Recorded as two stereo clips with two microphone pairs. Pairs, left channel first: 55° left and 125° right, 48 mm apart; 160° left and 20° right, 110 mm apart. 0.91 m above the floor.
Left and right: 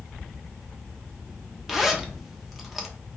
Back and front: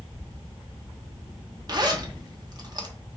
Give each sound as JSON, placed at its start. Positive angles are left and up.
{"t": 1.7, "sound": "a zipper", "azimuth_deg": -35, "distance_m": 0.8}